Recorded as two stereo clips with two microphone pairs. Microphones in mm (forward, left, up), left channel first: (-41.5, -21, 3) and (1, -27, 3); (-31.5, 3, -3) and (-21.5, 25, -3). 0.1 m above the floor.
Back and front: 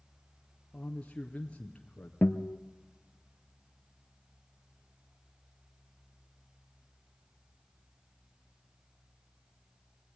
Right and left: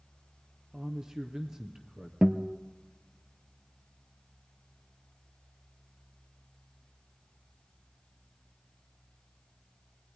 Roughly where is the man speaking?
Behind left.